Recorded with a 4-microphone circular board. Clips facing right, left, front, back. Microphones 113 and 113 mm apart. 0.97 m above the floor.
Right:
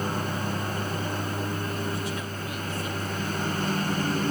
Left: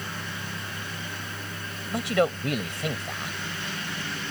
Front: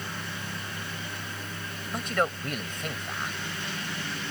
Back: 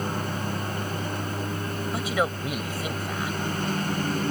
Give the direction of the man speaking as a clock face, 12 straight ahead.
9 o'clock.